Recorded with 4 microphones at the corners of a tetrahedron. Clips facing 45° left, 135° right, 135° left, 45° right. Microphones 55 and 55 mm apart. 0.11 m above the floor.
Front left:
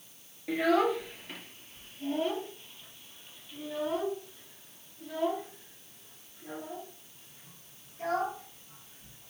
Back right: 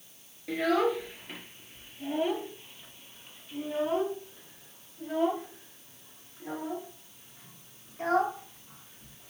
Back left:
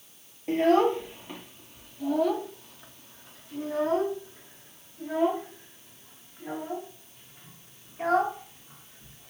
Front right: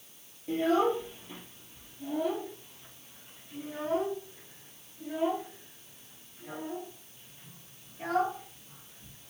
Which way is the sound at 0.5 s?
125° left.